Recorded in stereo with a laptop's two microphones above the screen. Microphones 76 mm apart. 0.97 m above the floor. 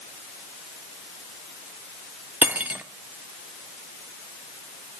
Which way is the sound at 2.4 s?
20° right (ahead or behind).